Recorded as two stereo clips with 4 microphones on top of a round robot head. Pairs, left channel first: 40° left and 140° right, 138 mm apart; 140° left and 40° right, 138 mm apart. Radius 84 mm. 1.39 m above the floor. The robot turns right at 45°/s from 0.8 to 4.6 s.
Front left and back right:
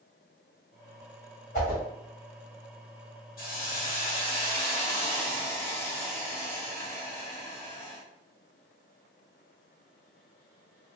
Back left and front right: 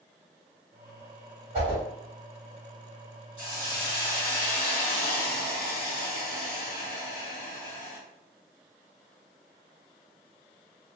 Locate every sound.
1.5 s a whoosh: 10° left, 1.6 m; by 1.8 s 20° left, 1.6 m
3.4 s a hiss: 55° left, 1.4 m; by 8.0 s 110° left, 1.4 m